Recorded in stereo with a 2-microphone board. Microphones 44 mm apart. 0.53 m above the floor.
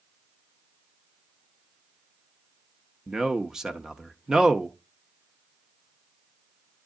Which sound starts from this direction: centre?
A man speaking, at 3.1 s.